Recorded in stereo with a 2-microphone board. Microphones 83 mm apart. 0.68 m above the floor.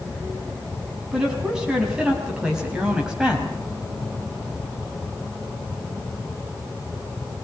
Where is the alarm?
No alarm in this recording.